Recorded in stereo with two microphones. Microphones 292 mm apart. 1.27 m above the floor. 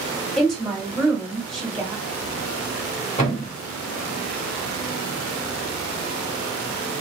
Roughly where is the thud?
Left.